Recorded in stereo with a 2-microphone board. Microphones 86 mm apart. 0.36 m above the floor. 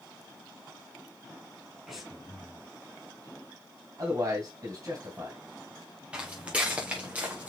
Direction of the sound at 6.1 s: 10° right (ahead or behind).